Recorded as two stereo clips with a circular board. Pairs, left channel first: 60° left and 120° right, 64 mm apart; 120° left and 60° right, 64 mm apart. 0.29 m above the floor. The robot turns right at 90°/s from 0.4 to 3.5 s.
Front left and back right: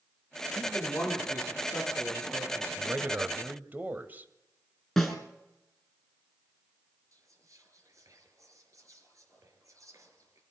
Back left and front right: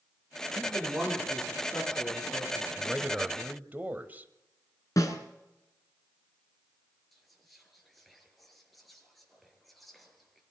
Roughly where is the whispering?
Behind right.